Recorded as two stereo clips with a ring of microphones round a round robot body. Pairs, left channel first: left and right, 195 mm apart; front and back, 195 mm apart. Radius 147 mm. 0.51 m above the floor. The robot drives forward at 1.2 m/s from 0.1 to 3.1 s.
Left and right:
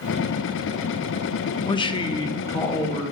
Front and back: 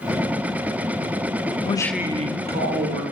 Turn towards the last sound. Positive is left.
turn(degrees=170)